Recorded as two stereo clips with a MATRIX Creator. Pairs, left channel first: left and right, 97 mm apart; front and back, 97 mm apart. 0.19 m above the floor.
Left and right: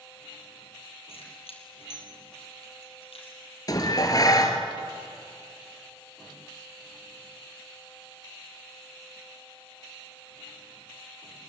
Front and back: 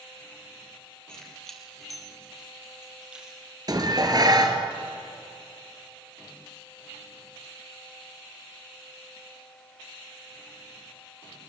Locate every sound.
1.1 s keys jangling: 80° left, 4 m; by 3.4 s 105° left, 4.5 m
3.7 s dishes clattering: 135° left, 2.0 m